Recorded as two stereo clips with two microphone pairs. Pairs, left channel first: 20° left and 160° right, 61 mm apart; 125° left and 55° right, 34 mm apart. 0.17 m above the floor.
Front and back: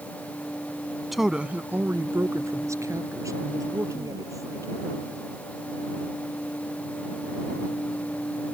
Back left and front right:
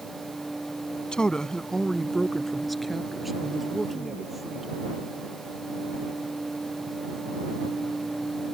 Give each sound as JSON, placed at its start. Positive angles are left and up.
{"t": 1.1, "sound": "a woman speaking", "azimuth_deg": 115}